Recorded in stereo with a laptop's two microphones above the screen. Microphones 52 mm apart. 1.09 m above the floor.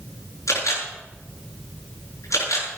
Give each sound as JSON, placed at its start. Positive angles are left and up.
{"t": 0.5, "sound": "a camera shutter", "side_deg": 85, "distance_m": 7.0}